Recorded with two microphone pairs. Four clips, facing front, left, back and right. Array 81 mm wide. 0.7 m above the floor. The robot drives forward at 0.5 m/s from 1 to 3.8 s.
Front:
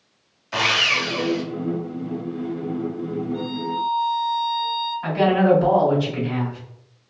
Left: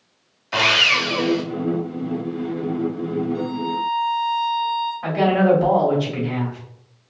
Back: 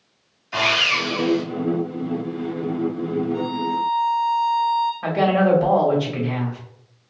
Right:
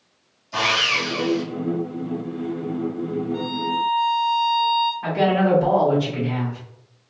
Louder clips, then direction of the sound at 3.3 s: Even, back 3 dB; 110° right.